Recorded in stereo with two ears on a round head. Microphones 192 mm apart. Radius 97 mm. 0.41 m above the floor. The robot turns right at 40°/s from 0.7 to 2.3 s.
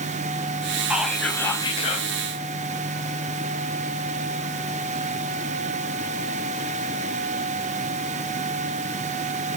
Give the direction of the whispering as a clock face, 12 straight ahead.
12 o'clock.